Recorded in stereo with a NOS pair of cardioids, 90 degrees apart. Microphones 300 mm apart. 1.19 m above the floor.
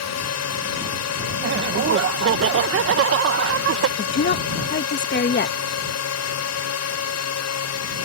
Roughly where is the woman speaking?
Ahead left.